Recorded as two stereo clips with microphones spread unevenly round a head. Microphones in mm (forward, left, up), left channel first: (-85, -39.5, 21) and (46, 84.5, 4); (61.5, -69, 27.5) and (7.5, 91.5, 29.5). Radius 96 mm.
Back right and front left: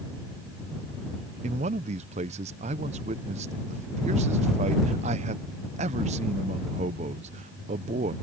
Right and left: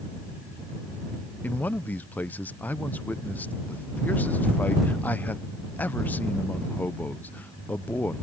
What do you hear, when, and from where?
1.4 s a man speaking: 5° left